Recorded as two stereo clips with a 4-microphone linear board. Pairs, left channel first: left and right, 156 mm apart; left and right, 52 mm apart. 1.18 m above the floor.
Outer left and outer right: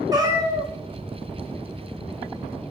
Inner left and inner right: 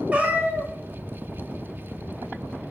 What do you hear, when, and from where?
0.1 s a cat meowing: 25° right (ahead or behind), 0.7 m